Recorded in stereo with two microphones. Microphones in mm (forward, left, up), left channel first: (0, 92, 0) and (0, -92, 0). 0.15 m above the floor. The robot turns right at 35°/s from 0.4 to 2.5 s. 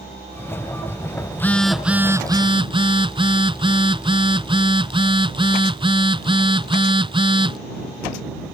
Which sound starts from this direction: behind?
A phone buzzing, at 1.3 s.